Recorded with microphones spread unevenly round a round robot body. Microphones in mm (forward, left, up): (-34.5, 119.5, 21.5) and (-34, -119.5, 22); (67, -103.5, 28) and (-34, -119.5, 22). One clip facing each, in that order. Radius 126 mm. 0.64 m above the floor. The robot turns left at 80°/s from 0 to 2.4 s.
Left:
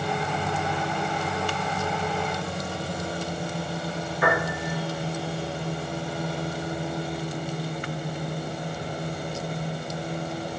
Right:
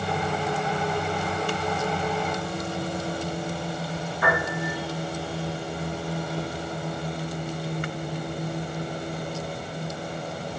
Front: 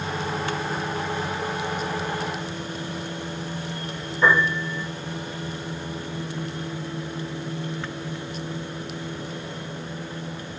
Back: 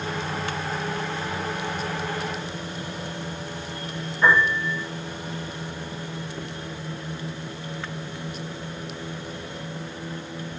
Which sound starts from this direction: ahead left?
A piano, at 4.2 s.